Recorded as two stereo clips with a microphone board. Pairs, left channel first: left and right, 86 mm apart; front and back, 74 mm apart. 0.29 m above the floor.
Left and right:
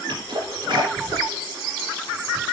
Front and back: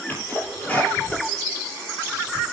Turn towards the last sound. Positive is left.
turn(degrees=-65)